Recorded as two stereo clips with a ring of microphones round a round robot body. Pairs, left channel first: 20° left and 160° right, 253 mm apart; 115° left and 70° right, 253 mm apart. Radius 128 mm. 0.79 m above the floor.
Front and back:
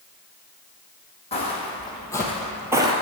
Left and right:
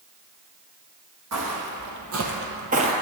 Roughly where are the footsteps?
Ahead right.